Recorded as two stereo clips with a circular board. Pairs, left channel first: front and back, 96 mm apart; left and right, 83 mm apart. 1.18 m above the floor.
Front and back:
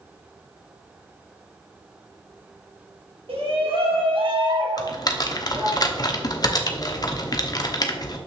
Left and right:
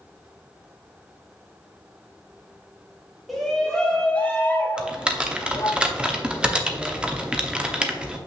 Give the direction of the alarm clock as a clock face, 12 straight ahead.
No alarm clock in this recording.